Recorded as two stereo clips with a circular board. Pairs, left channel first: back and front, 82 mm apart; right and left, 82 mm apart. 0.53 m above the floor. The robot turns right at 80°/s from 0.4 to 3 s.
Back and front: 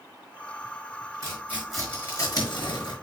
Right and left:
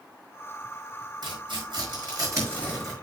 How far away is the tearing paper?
About 5 m.